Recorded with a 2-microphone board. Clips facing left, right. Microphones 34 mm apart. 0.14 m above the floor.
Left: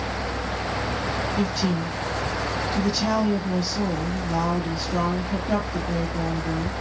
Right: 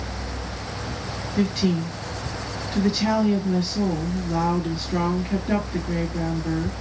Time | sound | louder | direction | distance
1.4 | a woman speaking | right 6 dB | 40° right (ahead or behind) | 2.5 m